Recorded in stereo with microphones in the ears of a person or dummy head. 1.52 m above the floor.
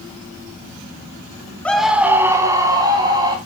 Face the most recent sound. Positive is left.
turn(degrees=-25)  # may be behind; listen again after turning